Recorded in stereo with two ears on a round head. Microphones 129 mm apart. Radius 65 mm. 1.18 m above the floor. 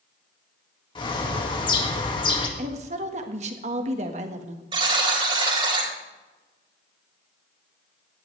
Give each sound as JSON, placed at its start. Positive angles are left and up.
{"t": 0.9, "sound": "a bird", "side_deg": 30, "distance_m": 1.9}
{"t": 2.6, "sound": "a woman speaking", "side_deg": -50, "distance_m": 1.6}
{"t": 4.7, "sound": "a buzzer", "side_deg": -35, "distance_m": 3.5}